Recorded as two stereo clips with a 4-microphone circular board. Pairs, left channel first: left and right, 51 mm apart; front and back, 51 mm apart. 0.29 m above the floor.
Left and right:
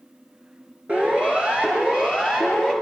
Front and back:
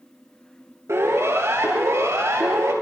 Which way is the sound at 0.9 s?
155° right.